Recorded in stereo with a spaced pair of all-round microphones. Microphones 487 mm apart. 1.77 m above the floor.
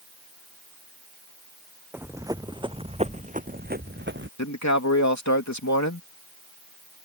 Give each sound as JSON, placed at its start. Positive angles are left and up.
{"t": 1.9, "sound": "running footsteps", "side_deg": -5}
{"t": 4.4, "sound": "a man speaking", "side_deg": 35}